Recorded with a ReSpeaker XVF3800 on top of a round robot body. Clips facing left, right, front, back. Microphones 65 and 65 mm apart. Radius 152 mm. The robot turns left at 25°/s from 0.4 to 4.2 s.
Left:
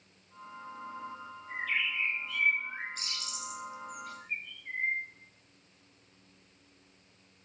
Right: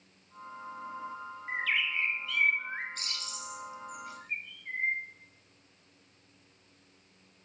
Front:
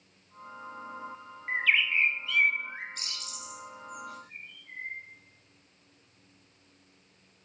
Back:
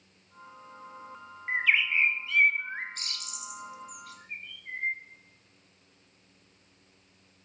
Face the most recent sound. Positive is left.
turn(degrees=-170)